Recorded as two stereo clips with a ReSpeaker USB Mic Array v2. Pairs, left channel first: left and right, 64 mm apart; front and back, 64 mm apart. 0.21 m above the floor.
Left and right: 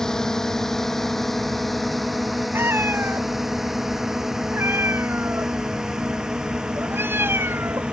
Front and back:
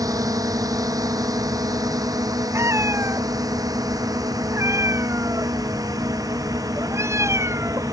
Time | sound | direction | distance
0.0 | a drone | 170° left | ?
2.5 | a cat meowing | 140° right | ?